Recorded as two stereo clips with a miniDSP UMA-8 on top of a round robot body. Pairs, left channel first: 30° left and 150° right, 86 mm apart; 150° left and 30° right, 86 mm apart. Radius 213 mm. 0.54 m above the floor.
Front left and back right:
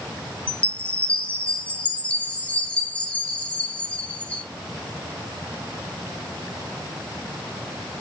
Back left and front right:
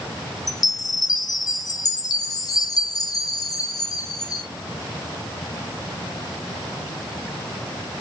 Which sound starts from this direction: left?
A chime, at 0.5 s.